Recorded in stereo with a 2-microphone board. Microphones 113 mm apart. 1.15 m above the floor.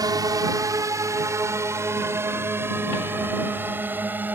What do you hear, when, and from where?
0.0 s a drone: 35° right (ahead or behind); by 4.4 s 15° right (ahead or behind)